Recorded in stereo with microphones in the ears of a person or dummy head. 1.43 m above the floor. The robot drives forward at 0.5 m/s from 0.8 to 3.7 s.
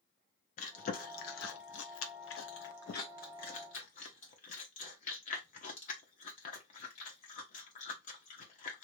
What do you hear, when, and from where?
0.6 s chewing: 50° left (ahead or behind), 1.0 m; by 8.8 s 45° left (ahead or behind), 1.1 m